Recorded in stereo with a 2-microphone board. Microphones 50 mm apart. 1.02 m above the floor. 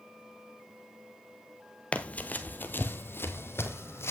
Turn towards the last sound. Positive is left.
turn(degrees=60)  # may be behind; listen again after turning